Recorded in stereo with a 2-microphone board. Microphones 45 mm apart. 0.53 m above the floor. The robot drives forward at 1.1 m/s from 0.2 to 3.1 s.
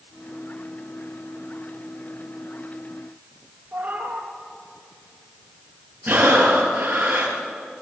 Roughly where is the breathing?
Right.